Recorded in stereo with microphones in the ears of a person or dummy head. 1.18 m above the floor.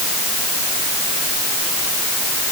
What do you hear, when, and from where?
Only background noise.